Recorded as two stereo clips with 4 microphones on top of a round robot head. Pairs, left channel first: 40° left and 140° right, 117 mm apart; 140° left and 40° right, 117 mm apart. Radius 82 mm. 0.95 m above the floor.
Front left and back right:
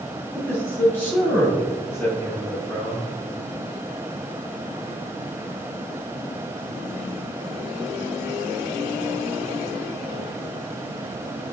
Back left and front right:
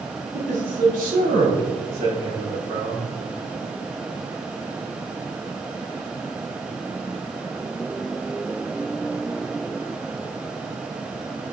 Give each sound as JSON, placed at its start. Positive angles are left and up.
{"t": 0.3, "sound": "a man speaking", "azimuth_deg": -30, "distance_m": 2.5}